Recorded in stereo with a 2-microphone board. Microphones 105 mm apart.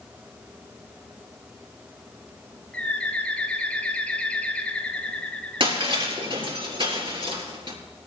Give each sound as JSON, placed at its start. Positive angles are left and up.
{"t": 2.7, "sound": "a bird", "side_deg": 10, "distance_m": 1.4}
{"t": 5.6, "sound": "breaking glass", "side_deg": -55, "distance_m": 4.0}